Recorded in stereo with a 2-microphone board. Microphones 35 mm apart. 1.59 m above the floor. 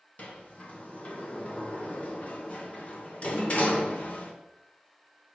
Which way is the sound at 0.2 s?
40° left (ahead or behind).